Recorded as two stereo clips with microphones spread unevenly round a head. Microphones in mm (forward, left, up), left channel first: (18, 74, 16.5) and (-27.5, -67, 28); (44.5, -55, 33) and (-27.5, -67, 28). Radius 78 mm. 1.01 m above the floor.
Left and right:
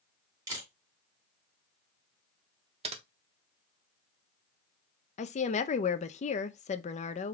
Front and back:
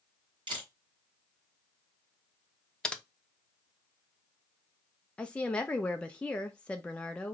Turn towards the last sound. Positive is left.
turn(degrees=90)